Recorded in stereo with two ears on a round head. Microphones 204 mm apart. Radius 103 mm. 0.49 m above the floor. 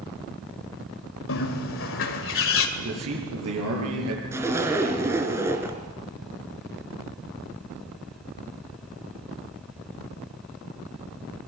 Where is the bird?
60° left (ahead or behind), 2 m.